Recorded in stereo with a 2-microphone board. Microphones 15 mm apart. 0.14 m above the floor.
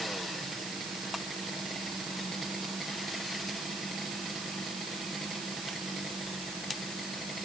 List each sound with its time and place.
Only background noise.